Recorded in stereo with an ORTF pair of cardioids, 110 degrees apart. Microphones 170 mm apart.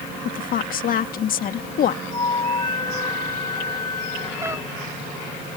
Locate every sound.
0.2 s a woman speaking: 55° left
2.1 s a flute: 25° left
4.4 s a cat meowing: 15° right